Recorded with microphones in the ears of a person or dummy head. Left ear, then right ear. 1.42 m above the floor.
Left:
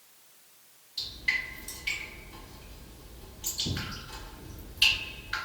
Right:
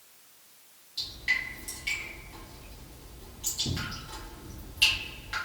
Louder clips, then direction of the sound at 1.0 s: Right 1 dB; 5° right (ahead or behind).